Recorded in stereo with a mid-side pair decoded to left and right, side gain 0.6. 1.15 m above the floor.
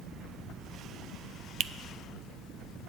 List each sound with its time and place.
1.6 s a finger snap: 50° right, 0.5 m